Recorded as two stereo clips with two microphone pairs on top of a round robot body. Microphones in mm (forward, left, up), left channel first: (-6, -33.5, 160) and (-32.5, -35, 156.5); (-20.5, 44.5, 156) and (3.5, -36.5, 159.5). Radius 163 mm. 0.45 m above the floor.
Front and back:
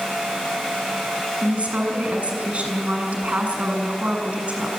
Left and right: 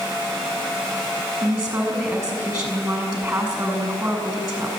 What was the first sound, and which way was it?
A woman speaking, 150° right.